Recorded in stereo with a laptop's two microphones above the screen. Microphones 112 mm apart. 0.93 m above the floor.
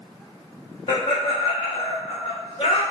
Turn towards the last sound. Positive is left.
turn(degrees=45)  # may be behind; listen again after turning